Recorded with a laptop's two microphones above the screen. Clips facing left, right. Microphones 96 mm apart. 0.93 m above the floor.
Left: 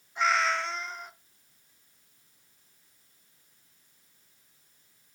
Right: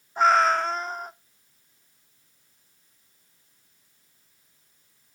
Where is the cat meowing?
45° right (ahead or behind), 0.7 m.